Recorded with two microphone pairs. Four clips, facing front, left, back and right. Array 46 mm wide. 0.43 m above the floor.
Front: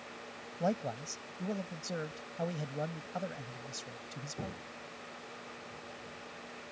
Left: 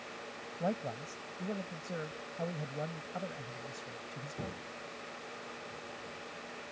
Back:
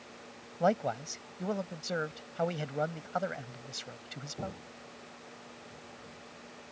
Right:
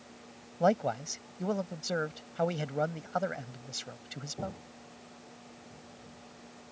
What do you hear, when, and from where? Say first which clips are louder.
0.6 s a man speaking: right 9 dB, back 5 dB; 130° right